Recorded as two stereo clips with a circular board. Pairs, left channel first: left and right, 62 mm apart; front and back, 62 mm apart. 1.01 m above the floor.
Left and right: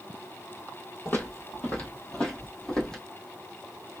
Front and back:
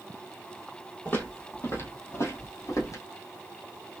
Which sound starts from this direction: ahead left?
Footsteps, at 1.1 s.